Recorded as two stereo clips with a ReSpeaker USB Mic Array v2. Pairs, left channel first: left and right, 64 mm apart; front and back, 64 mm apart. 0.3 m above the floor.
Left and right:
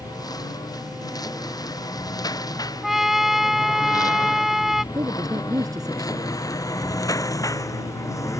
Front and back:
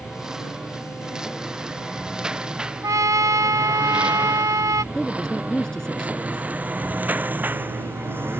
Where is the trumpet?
175° right.